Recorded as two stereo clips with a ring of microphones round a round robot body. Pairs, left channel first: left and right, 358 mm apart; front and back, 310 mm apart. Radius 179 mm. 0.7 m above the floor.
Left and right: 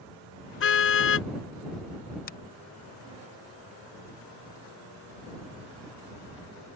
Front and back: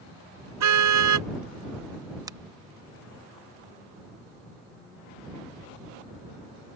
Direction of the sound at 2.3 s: 115° left.